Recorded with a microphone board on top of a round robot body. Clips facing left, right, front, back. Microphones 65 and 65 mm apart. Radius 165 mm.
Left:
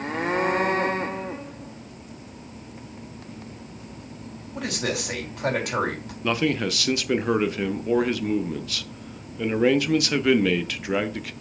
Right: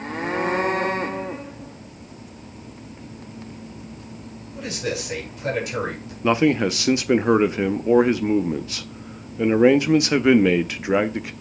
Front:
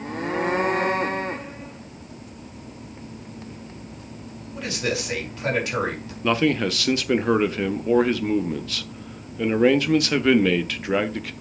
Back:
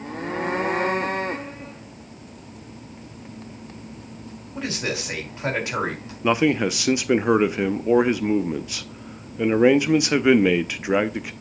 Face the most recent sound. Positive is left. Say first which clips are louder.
# right 6 dB, back 1 dB
turn(degrees=-120)